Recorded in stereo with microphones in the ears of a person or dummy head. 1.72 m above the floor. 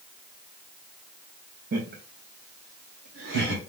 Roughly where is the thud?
I don't hear a thud.